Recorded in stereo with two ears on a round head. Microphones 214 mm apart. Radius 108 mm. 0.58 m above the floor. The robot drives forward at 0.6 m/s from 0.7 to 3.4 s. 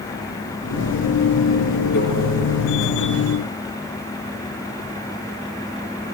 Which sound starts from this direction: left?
A microwave, at 1.9 s.